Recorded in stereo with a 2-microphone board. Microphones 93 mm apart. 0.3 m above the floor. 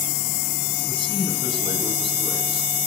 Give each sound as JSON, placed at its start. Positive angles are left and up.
{"t": 0.9, "sound": "a man speaking", "side_deg": -60, "distance_m": 3.0}